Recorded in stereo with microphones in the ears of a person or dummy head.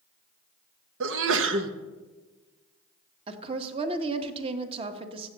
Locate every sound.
1.0 s a sneeze: 75° right (ahead or behind), 1.3 m
3.3 s a woman speaking: 35° right (ahead or behind), 1.4 m